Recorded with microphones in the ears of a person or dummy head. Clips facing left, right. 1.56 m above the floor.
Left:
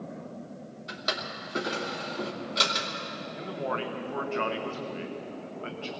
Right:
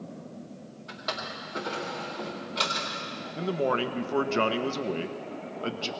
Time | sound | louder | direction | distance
0.9 | a drawer | left 1 dB | 45° left (ahead or behind) | 2 m
3.4 | a man speaking | right 6 dB | 65° right (ahead or behind) | 1.0 m